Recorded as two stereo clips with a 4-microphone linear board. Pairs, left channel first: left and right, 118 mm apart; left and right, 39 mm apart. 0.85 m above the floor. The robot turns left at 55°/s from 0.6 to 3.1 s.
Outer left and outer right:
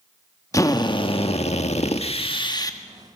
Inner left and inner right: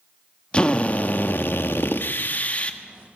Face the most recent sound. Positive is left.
turn(degrees=10)